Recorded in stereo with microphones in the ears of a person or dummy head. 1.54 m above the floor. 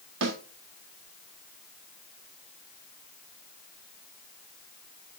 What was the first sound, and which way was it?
A snare drum, 70° right (ahead or behind).